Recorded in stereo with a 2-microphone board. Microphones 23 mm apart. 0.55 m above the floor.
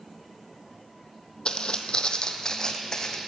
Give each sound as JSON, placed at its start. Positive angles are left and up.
{"t": 1.4, "sound": "footsteps", "side_deg": 45, "distance_m": 0.8}